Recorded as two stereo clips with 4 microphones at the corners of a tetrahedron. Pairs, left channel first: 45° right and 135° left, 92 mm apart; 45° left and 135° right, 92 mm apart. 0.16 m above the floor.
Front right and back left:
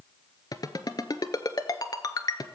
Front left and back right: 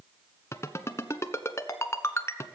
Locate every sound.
0.5 s a ringtone: 10° right, 0.9 m